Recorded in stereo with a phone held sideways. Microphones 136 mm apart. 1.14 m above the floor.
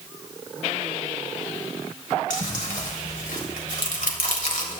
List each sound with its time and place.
2.3 s chewing: 80° left, 3 m